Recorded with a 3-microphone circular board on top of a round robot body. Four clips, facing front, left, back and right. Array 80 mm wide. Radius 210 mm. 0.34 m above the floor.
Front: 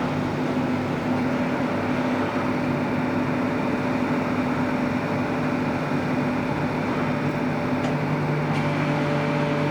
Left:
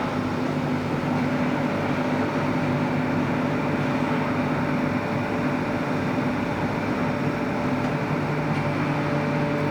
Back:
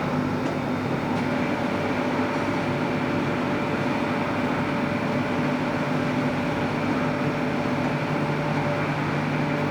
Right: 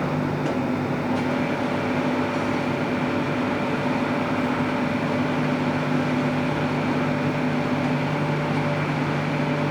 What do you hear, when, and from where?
Only background noise.